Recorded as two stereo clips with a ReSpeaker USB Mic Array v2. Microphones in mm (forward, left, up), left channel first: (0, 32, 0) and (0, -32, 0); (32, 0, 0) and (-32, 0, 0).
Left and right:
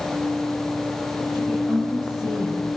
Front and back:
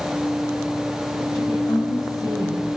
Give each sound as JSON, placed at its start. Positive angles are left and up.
{"t": 1.3, "sound": "a woman speaking", "azimuth_deg": 10, "distance_m": 7.0}